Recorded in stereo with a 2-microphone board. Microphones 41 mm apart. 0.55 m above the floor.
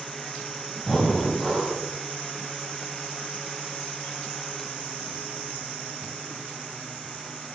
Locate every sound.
0.8 s breathing: centre (ahead or behind), 0.7 m